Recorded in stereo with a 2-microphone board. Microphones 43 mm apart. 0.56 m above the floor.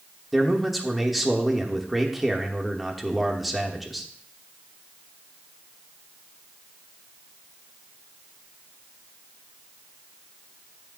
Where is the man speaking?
Centre (ahead or behind), 1.3 m.